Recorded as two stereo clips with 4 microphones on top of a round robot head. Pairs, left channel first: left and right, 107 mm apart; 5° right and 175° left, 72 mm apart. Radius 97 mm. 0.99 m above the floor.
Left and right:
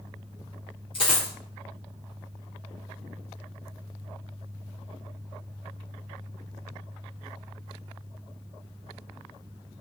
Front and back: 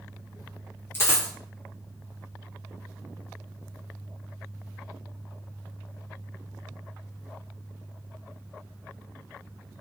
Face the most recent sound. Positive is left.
turn(degrees=40)